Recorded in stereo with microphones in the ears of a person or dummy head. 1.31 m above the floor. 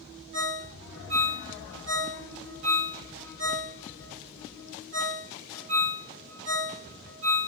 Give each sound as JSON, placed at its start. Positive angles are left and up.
{"t": 0.3, "sound": "a ringtone", "side_deg": -65, "distance_m": 1.1}